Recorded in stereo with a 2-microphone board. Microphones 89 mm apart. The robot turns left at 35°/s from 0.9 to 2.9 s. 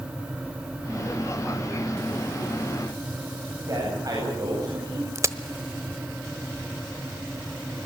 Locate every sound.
3.7 s a man speaking: 45° right (ahead or behind), 9 m
5.2 s a crack: 35° right (ahead or behind), 1.1 m